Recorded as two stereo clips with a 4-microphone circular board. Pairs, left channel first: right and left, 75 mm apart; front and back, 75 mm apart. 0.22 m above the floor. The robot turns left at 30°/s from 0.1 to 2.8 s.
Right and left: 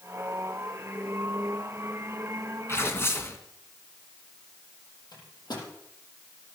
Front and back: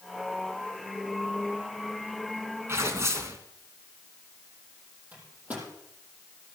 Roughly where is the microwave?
Right.